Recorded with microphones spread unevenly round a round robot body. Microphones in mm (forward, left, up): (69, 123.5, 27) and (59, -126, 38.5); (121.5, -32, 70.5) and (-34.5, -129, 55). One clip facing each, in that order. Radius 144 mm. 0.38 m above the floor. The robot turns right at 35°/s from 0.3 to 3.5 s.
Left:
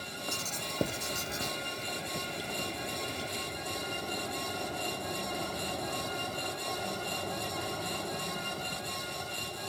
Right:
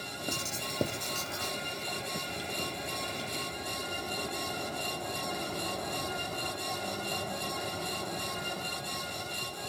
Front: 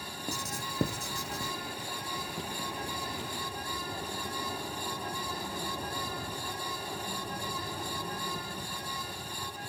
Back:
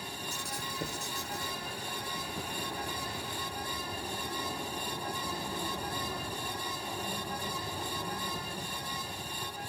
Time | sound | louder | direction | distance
0.3 | writing | right 3 dB, front 2 dB | 20° right | 0.5 m